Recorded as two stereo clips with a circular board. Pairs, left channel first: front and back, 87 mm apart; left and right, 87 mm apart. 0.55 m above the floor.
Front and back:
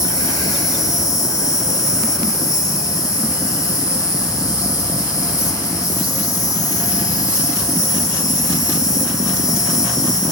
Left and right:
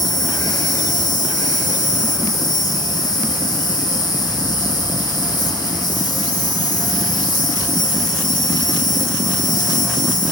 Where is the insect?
50° left, 1.1 m.